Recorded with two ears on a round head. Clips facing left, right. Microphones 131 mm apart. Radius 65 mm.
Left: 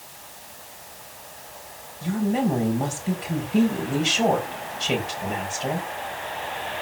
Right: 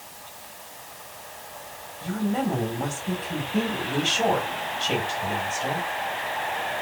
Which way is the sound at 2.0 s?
15° left (ahead or behind).